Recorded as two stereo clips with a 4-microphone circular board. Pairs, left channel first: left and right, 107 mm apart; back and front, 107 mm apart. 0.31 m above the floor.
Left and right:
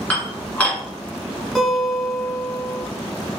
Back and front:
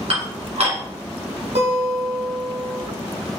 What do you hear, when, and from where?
0.1 s dishes clattering: 15° left, 1.9 m
1.6 s a guitar: straight ahead, 2.5 m